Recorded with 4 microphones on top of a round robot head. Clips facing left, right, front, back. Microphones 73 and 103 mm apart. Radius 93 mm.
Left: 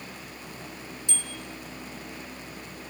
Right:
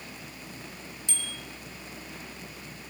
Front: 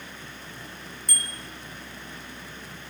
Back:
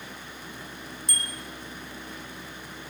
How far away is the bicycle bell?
About 2 m.